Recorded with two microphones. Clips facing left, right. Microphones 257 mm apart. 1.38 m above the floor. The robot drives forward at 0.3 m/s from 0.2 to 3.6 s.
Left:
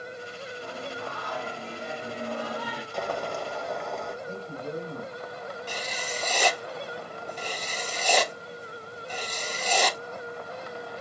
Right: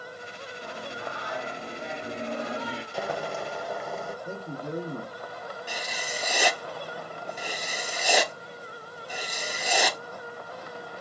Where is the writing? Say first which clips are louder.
Left 1 dB; 10° right (ahead or behind), 0.5 m.